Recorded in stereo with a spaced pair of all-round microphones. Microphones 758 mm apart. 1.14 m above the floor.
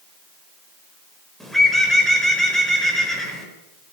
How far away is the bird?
About 5 m.